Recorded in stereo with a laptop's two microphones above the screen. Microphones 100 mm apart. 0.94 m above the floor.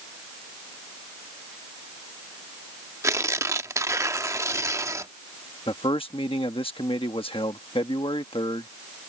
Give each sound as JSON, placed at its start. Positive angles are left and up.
{"t": 3.0, "sound": "tearing paper", "side_deg": -30}
{"t": 5.7, "sound": "a man speaking", "side_deg": 60}